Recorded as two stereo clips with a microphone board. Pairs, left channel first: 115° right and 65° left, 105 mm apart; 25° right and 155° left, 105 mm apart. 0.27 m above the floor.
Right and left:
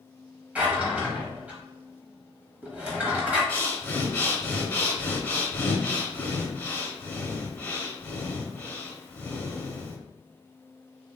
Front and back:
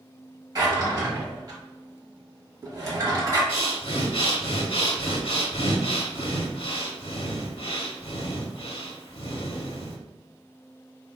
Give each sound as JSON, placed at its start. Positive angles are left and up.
{"t": 0.6, "sound": "a drawer", "azimuth_deg": 135, "distance_m": 0.8}
{"t": 3.5, "sound": "breathing", "azimuth_deg": -45, "distance_m": 0.5}